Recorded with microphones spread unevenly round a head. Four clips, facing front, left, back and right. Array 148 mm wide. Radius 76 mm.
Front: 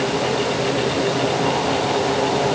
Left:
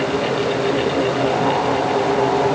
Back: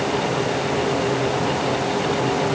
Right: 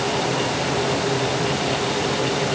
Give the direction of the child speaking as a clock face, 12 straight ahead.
No child speaking in this recording.